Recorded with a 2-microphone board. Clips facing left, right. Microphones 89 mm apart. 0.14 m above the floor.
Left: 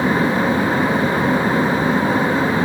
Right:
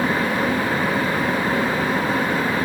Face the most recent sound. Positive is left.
No sound to turn to.